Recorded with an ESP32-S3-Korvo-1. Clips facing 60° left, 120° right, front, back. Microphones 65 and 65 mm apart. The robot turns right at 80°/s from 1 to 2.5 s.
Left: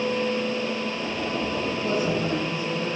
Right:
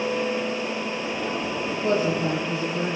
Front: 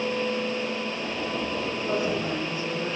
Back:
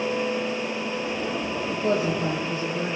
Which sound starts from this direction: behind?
A woman speaking, at 1.7 s.